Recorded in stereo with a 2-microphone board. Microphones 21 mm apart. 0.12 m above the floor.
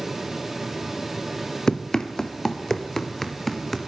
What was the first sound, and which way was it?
Running footsteps, 30° left (ahead or behind).